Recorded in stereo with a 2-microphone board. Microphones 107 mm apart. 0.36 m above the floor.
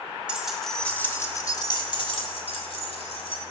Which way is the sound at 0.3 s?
10° right (ahead or behind).